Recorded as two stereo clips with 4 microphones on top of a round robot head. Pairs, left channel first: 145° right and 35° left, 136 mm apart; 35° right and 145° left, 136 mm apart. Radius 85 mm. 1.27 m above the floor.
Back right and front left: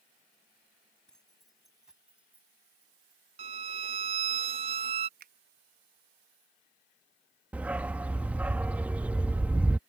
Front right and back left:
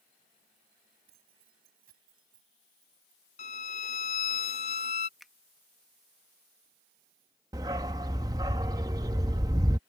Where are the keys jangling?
130° left; by 3.2 s 110° left.